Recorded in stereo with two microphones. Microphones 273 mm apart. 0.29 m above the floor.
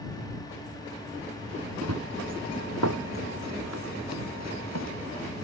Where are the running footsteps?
65° right (ahead or behind); by 4.9 s 75° right (ahead or behind).